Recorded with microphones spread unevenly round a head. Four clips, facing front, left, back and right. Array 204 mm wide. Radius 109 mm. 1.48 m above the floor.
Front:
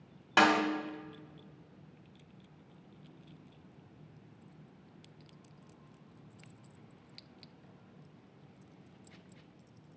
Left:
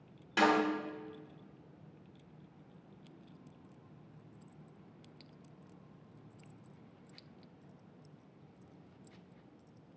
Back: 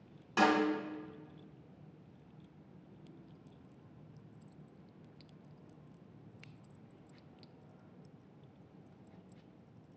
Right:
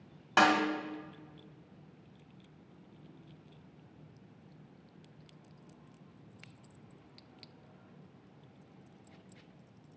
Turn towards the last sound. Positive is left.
turn(degrees=-25)